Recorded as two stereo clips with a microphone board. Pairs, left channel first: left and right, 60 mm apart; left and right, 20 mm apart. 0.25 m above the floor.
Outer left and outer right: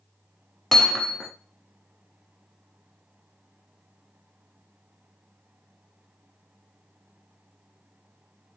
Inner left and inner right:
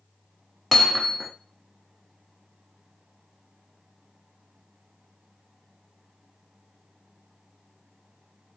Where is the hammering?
5° left (ahead or behind), 0.9 m.